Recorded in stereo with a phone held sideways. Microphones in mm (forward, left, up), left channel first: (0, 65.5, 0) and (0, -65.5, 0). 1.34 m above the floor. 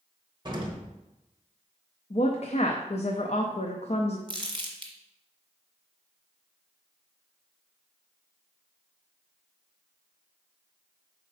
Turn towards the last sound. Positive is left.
turn(degrees=-35)  # may be behind; listen again after turning